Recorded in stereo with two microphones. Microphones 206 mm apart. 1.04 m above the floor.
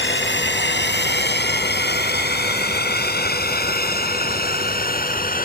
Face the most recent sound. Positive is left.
turn(degrees=45)  # may be behind; listen again after turning